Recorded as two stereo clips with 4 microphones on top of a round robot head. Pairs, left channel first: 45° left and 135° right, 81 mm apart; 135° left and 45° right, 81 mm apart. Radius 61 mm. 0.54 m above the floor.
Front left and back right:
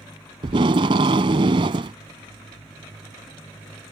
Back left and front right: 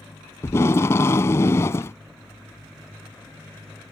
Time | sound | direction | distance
0.4 | tape being pulled | 165° right | ?